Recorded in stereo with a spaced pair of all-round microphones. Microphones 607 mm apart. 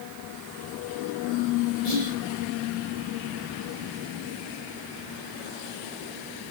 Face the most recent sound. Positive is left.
turn(degrees=85)